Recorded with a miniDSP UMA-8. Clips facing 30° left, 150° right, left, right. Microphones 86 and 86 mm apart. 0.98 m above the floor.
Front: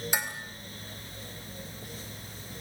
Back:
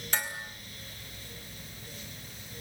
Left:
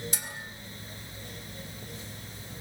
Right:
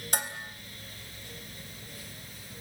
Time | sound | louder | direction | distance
0.1 | dishes clattering | even, right 7 dB | 50° right | 4 m